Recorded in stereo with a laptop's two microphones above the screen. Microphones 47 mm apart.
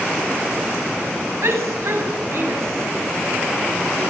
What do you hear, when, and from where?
1.4 s a shout: 75° right (ahead or behind), 9 m